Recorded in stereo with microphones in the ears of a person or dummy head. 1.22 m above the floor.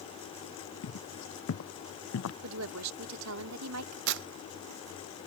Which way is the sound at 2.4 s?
80° right.